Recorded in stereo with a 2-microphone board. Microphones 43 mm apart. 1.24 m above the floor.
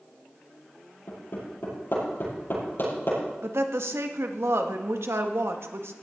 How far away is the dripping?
I don't hear dripping.